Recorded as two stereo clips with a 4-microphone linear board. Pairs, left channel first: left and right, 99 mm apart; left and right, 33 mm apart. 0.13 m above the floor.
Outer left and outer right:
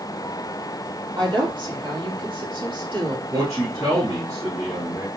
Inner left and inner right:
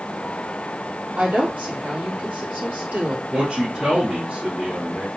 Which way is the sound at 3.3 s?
40° right (ahead or behind).